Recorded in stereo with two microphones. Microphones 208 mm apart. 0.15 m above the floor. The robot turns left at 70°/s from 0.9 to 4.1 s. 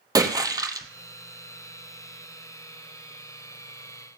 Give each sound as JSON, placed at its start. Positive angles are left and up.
{"t": 0.1, "sound": "a splash", "side_deg": -20, "distance_m": 0.9}